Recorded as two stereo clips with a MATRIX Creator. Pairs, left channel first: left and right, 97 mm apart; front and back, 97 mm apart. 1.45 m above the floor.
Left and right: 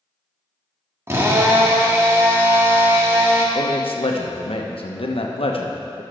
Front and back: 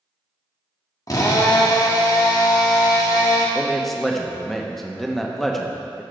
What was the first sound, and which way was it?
A drill, 35° right.